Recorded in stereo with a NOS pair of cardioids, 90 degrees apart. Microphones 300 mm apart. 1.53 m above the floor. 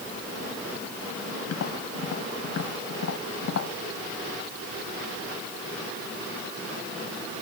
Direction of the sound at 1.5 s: 55° left.